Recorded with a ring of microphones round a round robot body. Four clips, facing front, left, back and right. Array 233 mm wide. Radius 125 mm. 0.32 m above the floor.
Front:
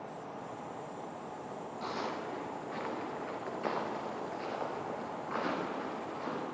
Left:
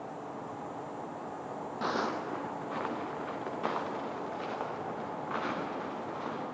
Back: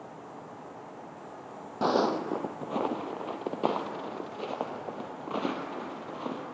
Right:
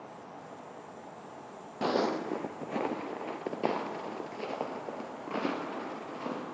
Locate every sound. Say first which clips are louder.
1.8 s footsteps: right 4 dB, back 13 dB; 155° right, 0.5 m; by 6.4 s 145° right, 5 m